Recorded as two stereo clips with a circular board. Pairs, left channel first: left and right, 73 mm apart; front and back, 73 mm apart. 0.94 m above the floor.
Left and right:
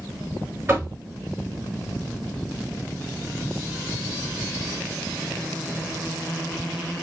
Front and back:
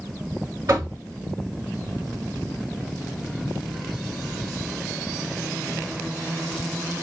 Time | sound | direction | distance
0.7 | knocking | 145° right | 1.8 m